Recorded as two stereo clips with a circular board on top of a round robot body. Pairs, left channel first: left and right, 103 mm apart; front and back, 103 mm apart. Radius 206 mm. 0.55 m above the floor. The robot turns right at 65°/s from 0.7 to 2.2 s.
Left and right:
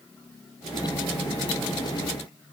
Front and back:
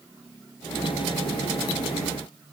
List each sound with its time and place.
Only background noise.